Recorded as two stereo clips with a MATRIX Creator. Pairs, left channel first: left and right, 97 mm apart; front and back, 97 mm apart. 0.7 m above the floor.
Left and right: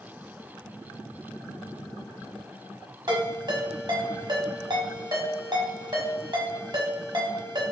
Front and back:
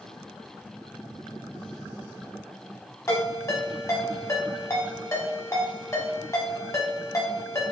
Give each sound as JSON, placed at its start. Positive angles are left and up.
{"t": 3.1, "sound": "a ringtone", "azimuth_deg": -50, "distance_m": 1.2}